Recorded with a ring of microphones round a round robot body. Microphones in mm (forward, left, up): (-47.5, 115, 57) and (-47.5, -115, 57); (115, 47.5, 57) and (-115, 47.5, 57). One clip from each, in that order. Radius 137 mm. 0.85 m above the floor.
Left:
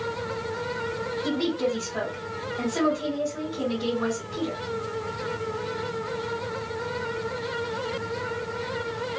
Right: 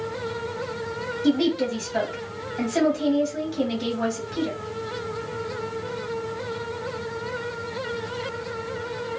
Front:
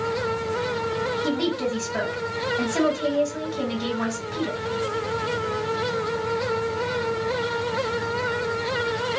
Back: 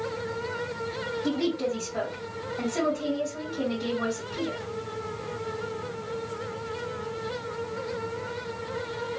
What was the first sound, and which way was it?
A woman speaking, 30° right.